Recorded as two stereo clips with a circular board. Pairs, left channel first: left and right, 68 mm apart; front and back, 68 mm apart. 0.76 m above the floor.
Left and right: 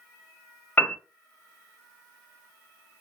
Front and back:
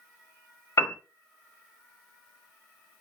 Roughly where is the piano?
Ahead left.